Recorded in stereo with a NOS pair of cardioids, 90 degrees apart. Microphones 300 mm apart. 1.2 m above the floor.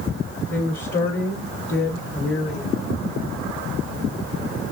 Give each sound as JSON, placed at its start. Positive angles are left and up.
{"t": 0.5, "sound": "a woman speaking", "azimuth_deg": 40, "distance_m": 2.5}